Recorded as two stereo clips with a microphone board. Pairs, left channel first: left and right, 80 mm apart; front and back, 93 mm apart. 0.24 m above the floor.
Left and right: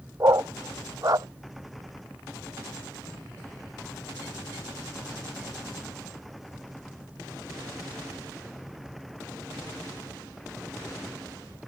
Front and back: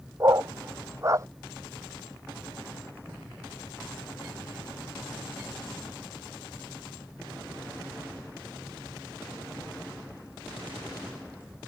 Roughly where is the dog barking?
Behind right.